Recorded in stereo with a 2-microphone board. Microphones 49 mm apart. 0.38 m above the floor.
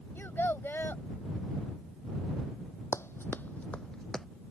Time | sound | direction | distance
0.1 | a child speaking | 50° left (ahead or behind) | ?
2.9 | running footsteps | 70° left (ahead or behind) | ?